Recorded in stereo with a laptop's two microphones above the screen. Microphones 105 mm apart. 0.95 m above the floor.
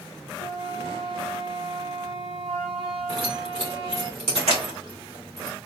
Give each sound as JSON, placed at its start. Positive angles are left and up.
{"t": 0.4, "sound": "a flute", "side_deg": -65, "distance_m": 1.5}
{"t": 3.1, "sound": "keys jangling", "side_deg": -85, "distance_m": 1.6}